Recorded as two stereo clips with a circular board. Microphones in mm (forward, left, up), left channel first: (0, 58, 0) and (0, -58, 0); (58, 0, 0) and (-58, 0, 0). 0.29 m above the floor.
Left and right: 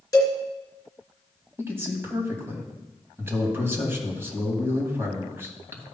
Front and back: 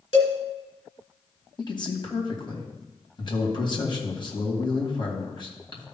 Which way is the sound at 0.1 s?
30° left.